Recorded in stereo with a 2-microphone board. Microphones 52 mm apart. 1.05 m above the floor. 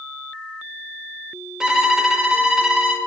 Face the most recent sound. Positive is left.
turn(degrees=-15)  # may be behind; listen again after turning